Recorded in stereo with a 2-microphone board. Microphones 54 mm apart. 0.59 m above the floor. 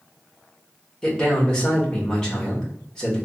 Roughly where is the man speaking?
Centre.